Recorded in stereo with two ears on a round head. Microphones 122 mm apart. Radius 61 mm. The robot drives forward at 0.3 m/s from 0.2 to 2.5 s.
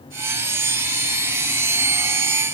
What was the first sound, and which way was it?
Only background noise.